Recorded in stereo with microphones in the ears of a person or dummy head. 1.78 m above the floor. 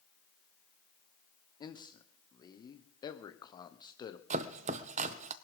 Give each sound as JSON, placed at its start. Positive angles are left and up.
{"t": 1.6, "sound": "a man speaking", "side_deg": 25, "distance_m": 1.2}
{"t": 4.3, "sound": "chopping", "side_deg": -40, "distance_m": 0.8}